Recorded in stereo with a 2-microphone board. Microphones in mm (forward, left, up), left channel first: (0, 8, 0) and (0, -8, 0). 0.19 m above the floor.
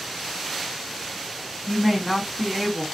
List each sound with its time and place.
1.7 s a woman speaking: 10° left (ahead or behind), 1.7 m